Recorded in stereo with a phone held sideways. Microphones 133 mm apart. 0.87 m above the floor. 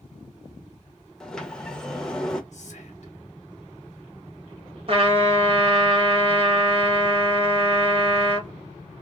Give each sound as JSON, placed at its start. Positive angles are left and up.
{"t": 1.2, "sound": "a sliding door", "side_deg": 5, "distance_m": 0.6}
{"t": 2.5, "sound": "whispering", "side_deg": 60, "distance_m": 1.0}
{"t": 4.9, "sound": "a trumpet", "side_deg": -45, "distance_m": 0.9}